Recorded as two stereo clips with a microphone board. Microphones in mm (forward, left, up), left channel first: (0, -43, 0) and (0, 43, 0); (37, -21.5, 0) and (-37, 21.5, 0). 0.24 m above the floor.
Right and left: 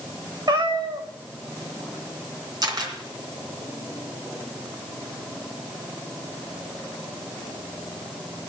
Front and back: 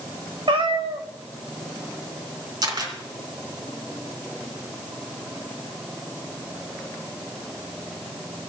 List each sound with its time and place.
0.5 s a cat meowing: 130° left, 1.7 m
2.6 s a camera shutter: 125° left, 3 m